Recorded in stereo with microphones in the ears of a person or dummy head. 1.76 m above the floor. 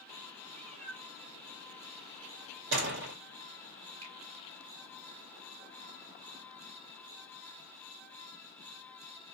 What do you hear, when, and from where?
0.5 s a cat meowing: 20° right (ahead or behind), 1.7 m
2.7 s a door slam: 60° right (ahead or behind), 2.5 m
4.0 s a finger snap: 35° right (ahead or behind), 2.5 m